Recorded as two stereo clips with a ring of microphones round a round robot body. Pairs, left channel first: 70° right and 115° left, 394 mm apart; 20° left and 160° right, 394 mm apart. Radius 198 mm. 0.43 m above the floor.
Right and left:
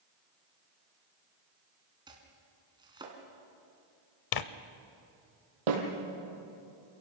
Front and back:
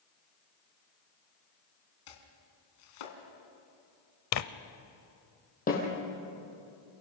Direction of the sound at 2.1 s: 35° left.